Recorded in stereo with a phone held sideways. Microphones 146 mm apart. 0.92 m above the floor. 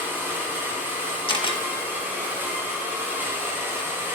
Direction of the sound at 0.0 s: 15° right (ahead or behind).